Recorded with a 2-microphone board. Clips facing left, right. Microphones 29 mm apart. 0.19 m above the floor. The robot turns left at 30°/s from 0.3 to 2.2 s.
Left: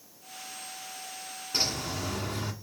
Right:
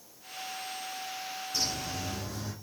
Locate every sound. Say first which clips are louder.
1.5 s a bird: left 4 dB; 45° left (ahead or behind), 1.9 m; by 2.5 s 50° left (ahead or behind), 1.9 m